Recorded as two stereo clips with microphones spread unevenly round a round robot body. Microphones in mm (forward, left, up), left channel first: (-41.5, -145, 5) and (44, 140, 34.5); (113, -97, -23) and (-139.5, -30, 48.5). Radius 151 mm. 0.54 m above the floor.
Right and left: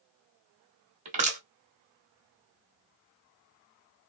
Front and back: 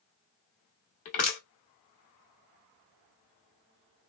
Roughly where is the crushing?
Ahead.